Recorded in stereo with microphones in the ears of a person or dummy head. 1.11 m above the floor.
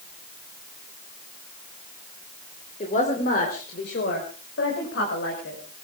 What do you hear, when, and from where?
2.8 s a woman speaking: 35° left (ahead or behind), 3 m; by 5.6 s 80° left, 5.5 m